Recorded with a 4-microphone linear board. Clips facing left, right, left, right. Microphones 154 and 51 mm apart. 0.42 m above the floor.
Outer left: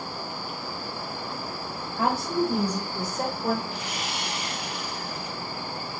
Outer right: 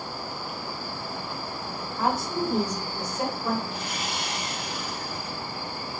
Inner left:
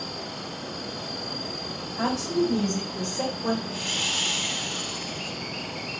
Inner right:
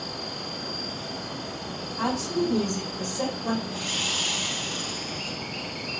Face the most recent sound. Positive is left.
turn(degrees=65)  # may be behind; listen again after turning